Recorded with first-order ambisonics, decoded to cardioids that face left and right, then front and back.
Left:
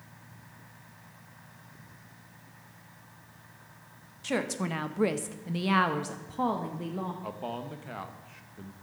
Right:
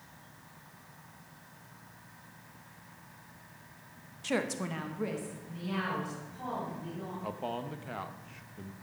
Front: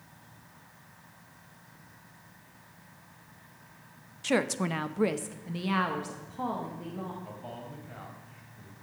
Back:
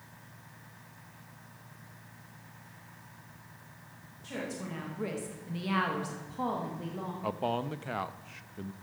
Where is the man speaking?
Straight behind, 0.7 m.